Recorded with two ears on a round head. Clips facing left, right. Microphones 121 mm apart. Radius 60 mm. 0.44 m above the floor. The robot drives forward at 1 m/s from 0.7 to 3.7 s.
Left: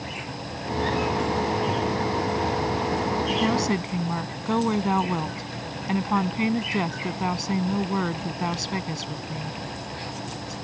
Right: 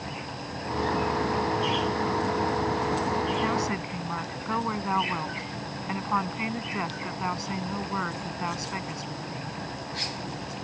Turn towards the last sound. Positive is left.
turn(degrees=35)  # may be behind; listen again after turning